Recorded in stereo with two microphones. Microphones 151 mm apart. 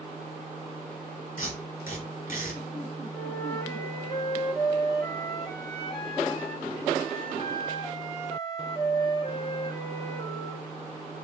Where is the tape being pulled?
65° left (ahead or behind), 3 m.